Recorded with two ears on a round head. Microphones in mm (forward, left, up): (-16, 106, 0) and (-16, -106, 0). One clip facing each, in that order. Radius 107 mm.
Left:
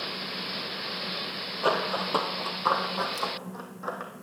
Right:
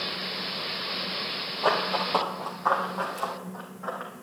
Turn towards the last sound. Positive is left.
turn(degrees=50)  # may be behind; listen again after turning